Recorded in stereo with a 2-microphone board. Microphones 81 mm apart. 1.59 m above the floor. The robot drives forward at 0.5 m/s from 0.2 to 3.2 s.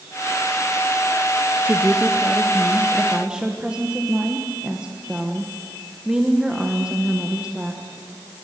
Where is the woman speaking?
25° right (ahead or behind), 0.8 m; by 7.8 s 10° right (ahead or behind), 1.5 m.